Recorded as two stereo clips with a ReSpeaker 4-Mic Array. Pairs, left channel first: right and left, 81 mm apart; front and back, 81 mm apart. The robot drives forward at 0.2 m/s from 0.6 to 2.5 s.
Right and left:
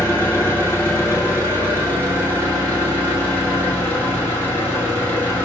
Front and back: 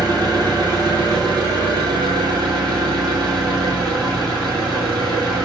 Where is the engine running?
145° right, 1.8 m; by 5.5 s 155° right, 2 m.